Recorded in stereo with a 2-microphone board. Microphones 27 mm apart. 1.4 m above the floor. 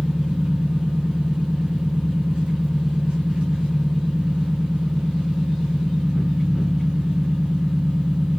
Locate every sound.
0.0 s an engine running: 50° right (ahead or behind), 7 m